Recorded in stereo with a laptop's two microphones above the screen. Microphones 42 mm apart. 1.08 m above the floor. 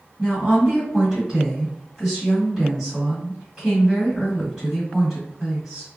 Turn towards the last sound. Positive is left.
turn(degrees=-10)  # may be behind; listen again after turning